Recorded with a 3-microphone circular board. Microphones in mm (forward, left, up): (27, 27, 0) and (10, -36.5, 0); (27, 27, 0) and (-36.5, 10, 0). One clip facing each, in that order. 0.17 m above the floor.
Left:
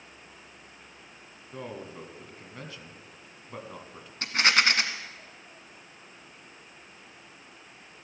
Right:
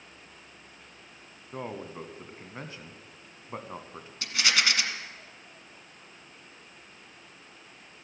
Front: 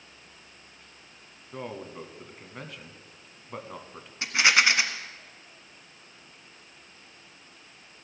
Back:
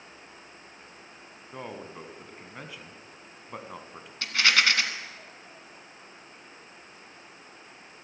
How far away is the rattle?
About 1.2 m.